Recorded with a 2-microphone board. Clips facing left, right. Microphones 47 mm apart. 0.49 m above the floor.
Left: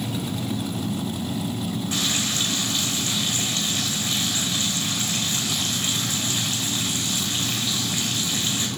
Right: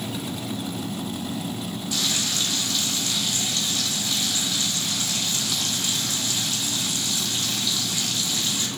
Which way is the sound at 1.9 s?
40° left (ahead or behind).